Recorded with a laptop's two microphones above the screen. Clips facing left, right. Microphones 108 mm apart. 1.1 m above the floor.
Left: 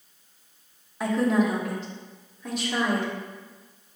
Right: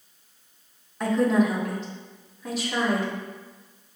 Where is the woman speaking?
5° left (ahead or behind), 0.8 m; by 3.1 s 5° right (ahead or behind), 1.8 m.